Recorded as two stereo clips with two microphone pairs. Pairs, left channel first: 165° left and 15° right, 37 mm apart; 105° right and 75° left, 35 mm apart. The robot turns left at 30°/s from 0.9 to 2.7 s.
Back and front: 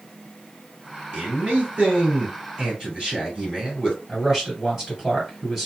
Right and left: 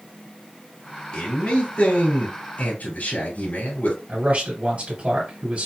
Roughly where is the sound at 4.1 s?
Ahead left.